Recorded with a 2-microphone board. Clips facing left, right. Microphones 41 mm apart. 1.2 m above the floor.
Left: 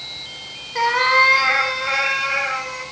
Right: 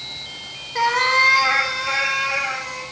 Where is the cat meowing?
5° left (ahead or behind), 0.7 m; by 2.8 s 20° left (ahead or behind), 3 m.